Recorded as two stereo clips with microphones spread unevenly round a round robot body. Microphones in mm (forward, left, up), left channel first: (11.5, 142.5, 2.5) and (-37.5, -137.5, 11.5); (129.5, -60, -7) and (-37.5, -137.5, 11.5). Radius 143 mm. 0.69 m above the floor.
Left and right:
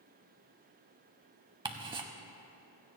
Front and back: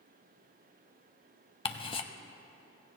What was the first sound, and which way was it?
Ticking, 35° right.